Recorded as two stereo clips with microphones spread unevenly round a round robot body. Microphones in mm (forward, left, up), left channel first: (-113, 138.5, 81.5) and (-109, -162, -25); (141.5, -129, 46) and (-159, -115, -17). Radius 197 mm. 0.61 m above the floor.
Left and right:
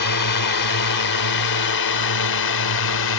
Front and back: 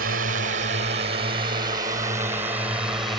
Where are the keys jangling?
No keys jangling in this recording.